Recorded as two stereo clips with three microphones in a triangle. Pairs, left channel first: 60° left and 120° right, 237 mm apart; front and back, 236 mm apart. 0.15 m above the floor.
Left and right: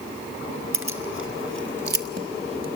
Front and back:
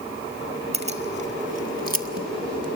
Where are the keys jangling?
120° right, 1.6 m; by 2.8 s straight behind, 1.0 m.